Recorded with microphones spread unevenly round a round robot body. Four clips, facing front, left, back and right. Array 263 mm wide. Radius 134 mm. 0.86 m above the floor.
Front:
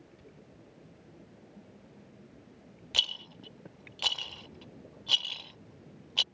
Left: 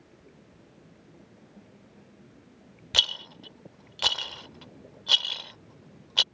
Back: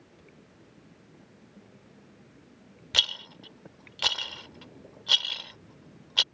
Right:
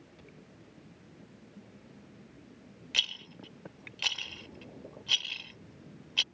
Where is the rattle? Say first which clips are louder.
Left 7 dB, back 4 dB; 130° left.